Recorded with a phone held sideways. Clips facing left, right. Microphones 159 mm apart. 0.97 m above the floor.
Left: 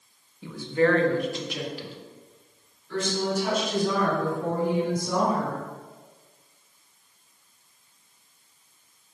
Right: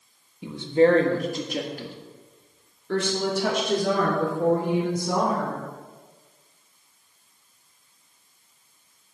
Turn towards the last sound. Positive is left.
turn(degrees=-75)  # may be behind; listen again after turning